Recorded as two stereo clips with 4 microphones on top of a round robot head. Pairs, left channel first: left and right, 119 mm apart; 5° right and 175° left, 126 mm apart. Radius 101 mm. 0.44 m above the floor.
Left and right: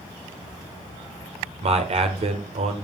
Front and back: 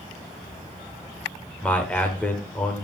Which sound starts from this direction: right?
A man speaking, at 1.6 s.